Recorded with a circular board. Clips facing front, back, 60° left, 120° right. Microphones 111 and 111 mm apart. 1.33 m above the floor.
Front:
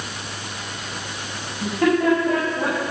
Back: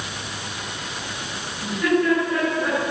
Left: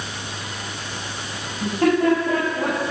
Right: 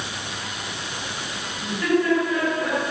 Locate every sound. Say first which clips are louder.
1.6 s laughter: front 2 dB, left 4 dB; 25° left, 10 m